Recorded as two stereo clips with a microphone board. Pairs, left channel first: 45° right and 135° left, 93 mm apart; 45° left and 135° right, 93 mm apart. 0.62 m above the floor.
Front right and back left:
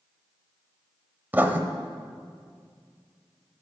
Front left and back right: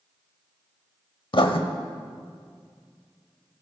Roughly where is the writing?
Ahead left.